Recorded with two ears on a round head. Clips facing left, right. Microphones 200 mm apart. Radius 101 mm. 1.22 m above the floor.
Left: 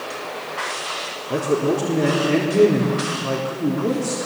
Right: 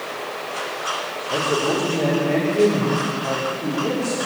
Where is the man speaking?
40° left (ahead or behind), 4 m.